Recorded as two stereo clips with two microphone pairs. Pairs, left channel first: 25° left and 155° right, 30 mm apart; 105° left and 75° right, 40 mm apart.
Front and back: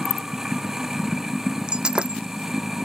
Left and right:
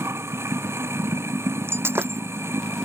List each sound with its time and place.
0.0 s running water: 80° right
1.7 s breaking glass: 95° right